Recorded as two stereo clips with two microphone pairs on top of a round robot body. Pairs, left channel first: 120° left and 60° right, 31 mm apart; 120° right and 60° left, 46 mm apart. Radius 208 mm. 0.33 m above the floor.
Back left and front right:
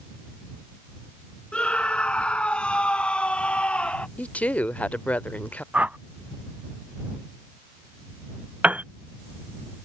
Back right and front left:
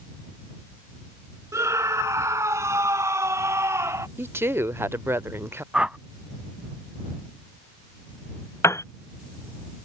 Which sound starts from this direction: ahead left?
A scream, at 1.5 s.